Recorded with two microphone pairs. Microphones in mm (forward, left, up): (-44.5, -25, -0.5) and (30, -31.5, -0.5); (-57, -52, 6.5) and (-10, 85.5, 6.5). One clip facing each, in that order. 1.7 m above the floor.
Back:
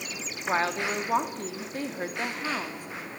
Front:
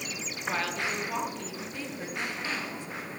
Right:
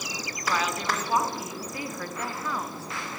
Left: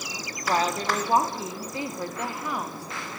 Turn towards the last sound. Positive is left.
turn(degrees=145)